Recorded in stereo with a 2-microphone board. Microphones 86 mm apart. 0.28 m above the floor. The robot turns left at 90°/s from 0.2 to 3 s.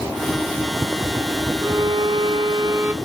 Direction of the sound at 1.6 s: 35° right.